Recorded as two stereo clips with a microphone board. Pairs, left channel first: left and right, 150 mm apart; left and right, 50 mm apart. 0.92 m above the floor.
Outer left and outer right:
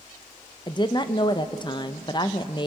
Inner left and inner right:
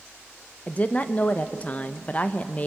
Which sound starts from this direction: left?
A woman speaking, at 0.7 s.